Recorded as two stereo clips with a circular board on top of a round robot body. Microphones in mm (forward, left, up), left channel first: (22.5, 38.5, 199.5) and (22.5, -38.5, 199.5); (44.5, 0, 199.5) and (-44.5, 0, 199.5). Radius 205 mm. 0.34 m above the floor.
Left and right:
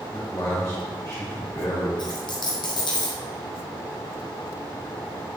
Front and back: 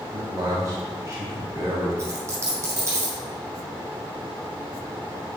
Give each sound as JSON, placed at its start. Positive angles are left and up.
{"t": 0.1, "sound": "a man speaking", "azimuth_deg": 135, "distance_m": 2.5}
{"t": 2.0, "sound": "a dropped coin", "azimuth_deg": 120, "distance_m": 1.2}